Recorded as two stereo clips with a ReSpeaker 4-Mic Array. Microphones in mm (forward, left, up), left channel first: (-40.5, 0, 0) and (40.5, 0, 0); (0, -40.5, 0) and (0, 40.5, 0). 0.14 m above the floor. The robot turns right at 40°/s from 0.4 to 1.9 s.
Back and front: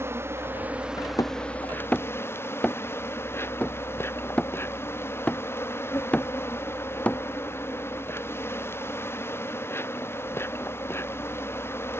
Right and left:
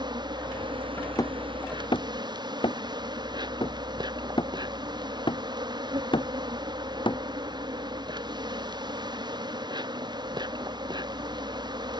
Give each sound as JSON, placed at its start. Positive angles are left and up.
{"t": 0.0, "sound": "an insect", "azimuth_deg": 60}
{"t": 1.2, "sound": "hammering", "azimuth_deg": -135}